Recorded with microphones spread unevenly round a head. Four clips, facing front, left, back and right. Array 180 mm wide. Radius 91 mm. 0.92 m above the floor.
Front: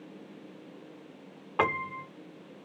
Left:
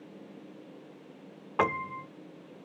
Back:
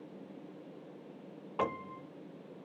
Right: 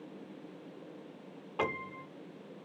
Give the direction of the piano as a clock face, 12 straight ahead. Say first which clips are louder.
Left 7 dB, front 6 dB; 10 o'clock.